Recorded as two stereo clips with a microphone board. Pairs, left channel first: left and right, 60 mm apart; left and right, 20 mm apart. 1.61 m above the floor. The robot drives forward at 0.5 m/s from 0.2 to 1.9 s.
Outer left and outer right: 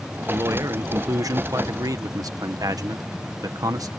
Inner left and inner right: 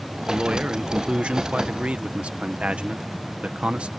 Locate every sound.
0.3 s a man speaking: 60° right (ahead or behind); by 3.9 s 85° right